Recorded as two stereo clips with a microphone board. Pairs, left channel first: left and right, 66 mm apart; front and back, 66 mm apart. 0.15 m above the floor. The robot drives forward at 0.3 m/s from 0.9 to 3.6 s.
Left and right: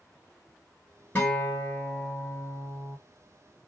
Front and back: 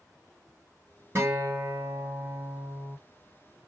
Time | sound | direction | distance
1.1 | a guitar | 145° left | 1.3 m